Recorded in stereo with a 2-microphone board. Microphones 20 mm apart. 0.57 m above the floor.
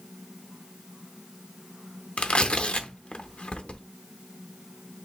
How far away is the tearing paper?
About 0.5 m.